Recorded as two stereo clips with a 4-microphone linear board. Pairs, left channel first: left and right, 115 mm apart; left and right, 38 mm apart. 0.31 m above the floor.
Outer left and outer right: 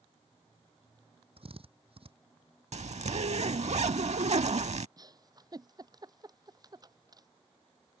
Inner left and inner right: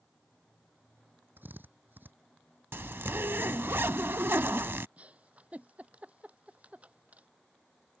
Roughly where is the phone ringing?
I don't hear a phone ringing.